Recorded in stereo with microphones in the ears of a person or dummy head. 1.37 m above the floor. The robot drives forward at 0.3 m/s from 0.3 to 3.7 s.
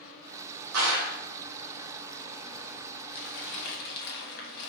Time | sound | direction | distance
0.7 | a clap | 75° right (ahead or behind) | 0.9 m
3.1 | crumpling | 65° left (ahead or behind) | 0.7 m